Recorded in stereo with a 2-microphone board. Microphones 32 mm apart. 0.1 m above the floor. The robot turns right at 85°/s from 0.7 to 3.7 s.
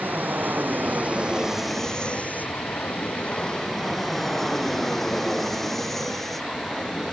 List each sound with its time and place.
0.0 s an aircraft: 80° right; by 7.1 s 175° left